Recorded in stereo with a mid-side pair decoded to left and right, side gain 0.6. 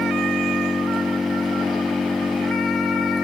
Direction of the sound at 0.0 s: 20° left.